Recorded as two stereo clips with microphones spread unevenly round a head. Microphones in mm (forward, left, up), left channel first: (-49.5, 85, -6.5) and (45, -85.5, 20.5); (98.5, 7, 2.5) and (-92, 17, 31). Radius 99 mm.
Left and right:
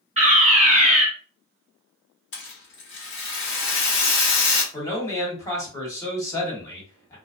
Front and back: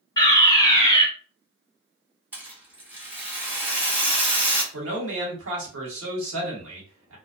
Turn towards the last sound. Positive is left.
turn(degrees=-170)